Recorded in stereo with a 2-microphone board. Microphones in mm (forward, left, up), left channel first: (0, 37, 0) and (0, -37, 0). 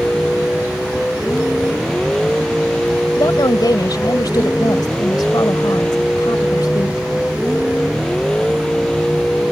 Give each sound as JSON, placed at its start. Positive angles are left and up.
{"t": 0.0, "sound": "a vehicle", "side_deg": 10}
{"t": 3.2, "sound": "a woman speaking", "side_deg": 65}